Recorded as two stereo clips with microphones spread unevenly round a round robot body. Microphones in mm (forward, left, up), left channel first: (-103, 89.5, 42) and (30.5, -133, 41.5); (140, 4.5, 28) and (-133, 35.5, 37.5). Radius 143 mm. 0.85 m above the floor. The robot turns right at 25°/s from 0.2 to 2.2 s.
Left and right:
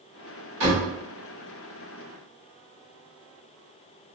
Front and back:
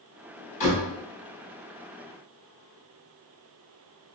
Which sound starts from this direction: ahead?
A door slam, at 0.6 s.